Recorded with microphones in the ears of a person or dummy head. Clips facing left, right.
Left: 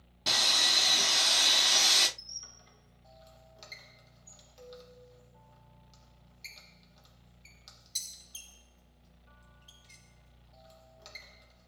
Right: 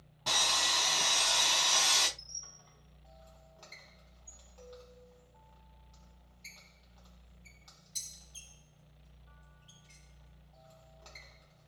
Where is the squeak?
30° left (ahead or behind), 0.9 m.